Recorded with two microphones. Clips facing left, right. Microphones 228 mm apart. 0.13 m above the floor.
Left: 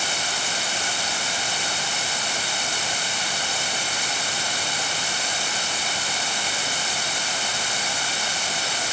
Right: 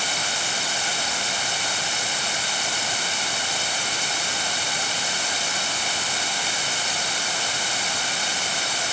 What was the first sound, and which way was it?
Only background noise.